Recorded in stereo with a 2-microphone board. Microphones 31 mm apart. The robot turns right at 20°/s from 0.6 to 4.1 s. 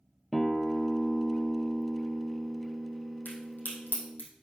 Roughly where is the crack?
Left.